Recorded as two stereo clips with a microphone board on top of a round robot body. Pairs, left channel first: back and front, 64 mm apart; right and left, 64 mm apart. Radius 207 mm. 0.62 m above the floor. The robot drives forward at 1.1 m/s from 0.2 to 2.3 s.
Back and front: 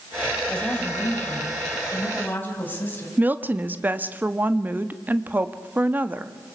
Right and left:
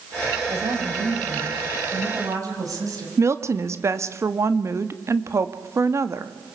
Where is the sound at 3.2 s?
55° left, 1.6 m.